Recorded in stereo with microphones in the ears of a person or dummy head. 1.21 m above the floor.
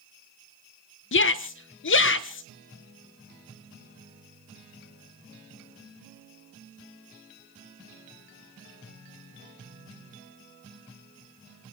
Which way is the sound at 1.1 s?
60° left (ahead or behind).